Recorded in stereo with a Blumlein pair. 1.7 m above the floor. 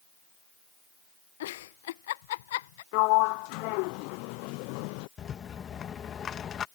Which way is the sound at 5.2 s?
25° left.